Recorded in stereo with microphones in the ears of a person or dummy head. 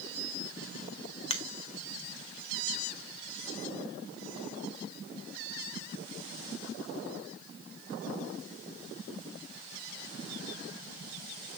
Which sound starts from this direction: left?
A finger snap, at 1.3 s.